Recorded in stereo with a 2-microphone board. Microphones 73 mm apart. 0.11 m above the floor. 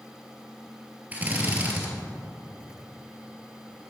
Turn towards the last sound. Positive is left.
turn(degrees=-20)  # may be behind; listen again after turning